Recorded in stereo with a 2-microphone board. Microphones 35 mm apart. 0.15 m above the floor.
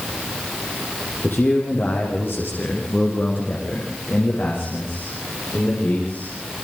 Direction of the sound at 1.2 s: 75° left (ahead or behind).